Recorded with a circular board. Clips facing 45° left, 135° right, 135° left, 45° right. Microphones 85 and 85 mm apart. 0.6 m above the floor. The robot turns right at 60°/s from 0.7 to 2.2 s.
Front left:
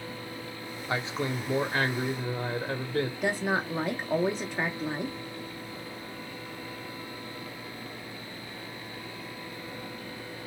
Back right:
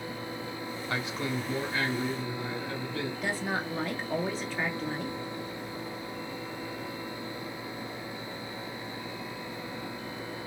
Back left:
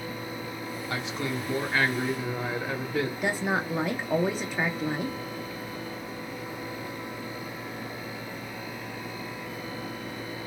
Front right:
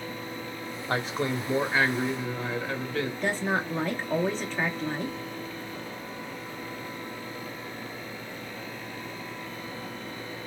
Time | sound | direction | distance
0.9 | a man speaking | 20° right | 1.0 m
3.2 | a woman speaking | 80° left | 0.7 m